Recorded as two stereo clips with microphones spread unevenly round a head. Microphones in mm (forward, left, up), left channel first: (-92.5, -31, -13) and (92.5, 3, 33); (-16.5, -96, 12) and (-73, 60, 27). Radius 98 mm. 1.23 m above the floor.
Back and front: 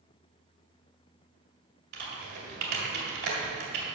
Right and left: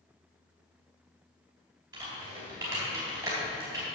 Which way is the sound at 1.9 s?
40° left.